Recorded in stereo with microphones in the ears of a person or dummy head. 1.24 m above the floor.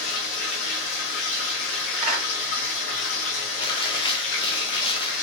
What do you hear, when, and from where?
0.0 s running water: 60° left (ahead or behind), 1.1 m
2.0 s a clap: 40° right (ahead or behind), 1.8 m
3.6 s chewing: 25° left (ahead or behind), 0.7 m